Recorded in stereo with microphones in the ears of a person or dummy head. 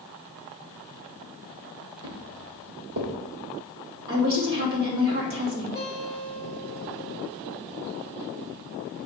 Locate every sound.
2.0 s footsteps: 60° right (ahead or behind), 2.5 m
4.1 s a woman speaking: 65° right (ahead or behind), 2.5 m
5.8 s a guitar: 25° right (ahead or behind), 2 m